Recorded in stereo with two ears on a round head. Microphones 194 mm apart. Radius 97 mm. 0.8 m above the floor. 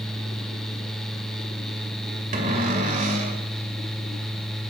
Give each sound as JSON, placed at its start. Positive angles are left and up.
{"t": 2.3, "sound": "a cupboard door", "side_deg": -40, "distance_m": 2.5}